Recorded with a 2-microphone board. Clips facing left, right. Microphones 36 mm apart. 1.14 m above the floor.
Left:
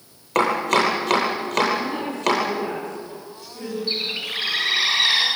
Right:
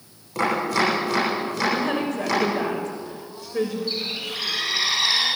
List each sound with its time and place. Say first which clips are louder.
0.3 s chopping: left 3 dB; 65° left (ahead or behind), 10 m
1.7 s a woman speaking: right 1 dB; 80° right, 5.5 m
3.9 s a bird: left 2 dB; 35° left (ahead or behind), 7.5 m